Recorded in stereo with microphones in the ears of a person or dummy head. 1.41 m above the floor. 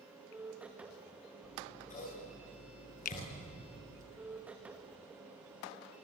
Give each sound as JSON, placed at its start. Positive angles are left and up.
{"t": 0.0, "sound": "a machine running", "side_deg": -10, "distance_m": 2.0}
{"t": 1.4, "sound": "scissors", "side_deg": 40, "distance_m": 9.5}
{"t": 3.0, "sound": "a finger snap", "side_deg": 40, "distance_m": 0.8}